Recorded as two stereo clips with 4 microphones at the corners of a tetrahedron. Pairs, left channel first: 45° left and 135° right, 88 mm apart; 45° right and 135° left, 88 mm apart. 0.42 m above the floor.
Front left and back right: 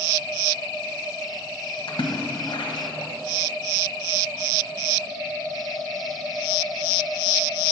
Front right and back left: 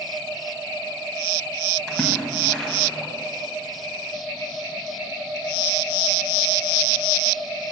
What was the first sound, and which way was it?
A splash, 35° left.